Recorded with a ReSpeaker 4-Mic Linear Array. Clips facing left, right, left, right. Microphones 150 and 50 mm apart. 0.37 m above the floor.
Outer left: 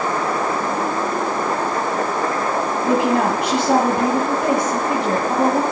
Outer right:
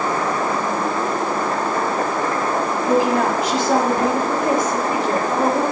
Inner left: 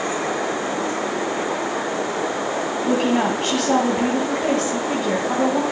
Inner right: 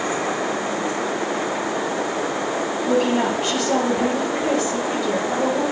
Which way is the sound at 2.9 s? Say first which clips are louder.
Even, even; 65° left (ahead or behind).